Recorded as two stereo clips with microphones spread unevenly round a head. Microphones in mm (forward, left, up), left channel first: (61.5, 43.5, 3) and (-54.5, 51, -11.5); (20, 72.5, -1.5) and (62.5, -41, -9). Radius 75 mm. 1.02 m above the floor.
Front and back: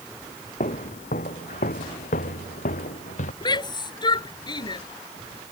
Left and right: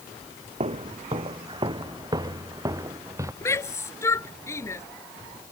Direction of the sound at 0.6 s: 35° right.